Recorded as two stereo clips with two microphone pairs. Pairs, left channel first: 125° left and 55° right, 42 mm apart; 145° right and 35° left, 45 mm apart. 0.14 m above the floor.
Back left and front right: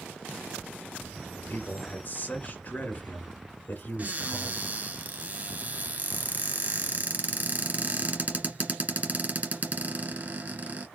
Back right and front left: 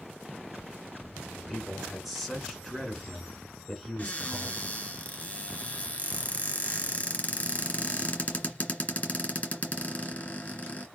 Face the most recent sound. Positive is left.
turn(degrees=-90)